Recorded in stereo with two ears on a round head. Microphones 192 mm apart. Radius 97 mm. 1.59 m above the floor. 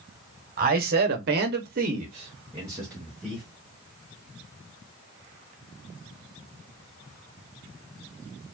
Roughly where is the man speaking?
Right.